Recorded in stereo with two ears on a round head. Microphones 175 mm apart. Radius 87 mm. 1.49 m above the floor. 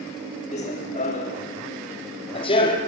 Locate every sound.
0.5 s running footsteps: 35° left (ahead or behind), 5 m; by 2.8 s 25° left (ahead or behind), 3.5 m